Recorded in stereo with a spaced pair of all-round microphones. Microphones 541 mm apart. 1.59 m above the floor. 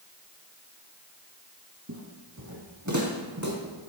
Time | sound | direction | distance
1.9 | footsteps | 30° right (ahead or behind) | 2 m